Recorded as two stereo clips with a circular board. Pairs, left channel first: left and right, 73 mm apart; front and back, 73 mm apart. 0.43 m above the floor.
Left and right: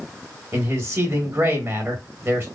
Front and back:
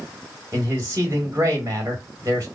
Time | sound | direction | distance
0.5 | a man speaking | 140° right | 2.5 m